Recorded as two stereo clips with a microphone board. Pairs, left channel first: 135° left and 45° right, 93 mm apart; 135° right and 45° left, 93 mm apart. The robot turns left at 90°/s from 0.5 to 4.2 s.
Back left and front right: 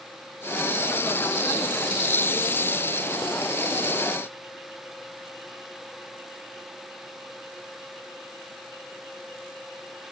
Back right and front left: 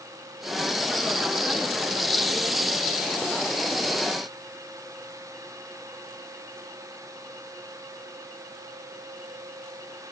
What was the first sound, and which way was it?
Only background noise.